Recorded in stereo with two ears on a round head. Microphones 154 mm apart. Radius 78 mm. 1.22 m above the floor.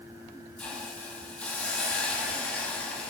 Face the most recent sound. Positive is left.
turn(degrees=10)  # may be behind; listen again after turning